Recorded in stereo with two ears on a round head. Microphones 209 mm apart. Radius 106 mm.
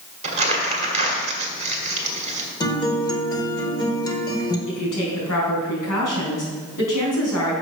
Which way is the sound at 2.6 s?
20° left (ahead or behind).